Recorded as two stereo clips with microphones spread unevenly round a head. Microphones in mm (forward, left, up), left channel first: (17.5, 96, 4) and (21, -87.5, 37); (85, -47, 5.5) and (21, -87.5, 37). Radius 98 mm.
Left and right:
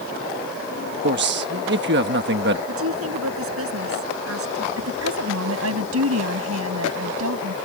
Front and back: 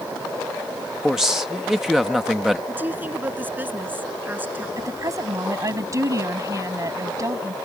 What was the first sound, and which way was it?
A man speaking, 60° right.